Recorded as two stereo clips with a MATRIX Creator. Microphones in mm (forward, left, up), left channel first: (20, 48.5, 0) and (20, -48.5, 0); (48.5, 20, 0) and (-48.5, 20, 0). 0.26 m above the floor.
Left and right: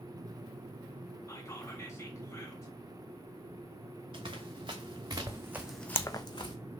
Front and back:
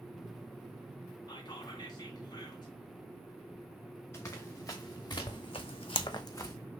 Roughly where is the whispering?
Ahead left.